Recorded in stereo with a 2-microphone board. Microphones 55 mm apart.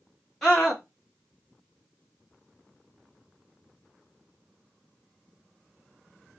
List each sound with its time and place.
0.4 s a scream: 5° left (ahead or behind), 1.8 m